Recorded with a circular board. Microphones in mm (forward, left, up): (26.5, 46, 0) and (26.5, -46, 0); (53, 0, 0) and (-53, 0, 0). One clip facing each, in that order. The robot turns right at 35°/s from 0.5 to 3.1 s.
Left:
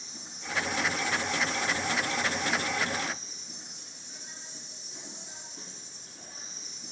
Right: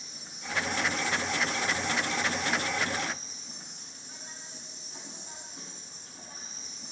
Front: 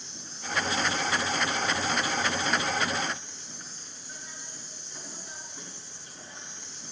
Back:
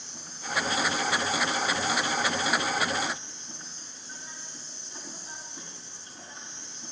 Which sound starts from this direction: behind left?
An insect, at 0.0 s.